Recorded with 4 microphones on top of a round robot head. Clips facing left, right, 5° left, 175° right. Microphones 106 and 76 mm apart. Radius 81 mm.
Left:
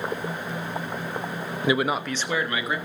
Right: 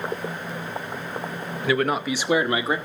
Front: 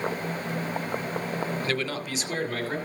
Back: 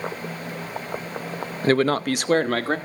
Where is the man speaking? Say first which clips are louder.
Right 1 dB, back 10 dB; 145° left, 0.6 m; by 2.8 s 155° right, 1.3 m.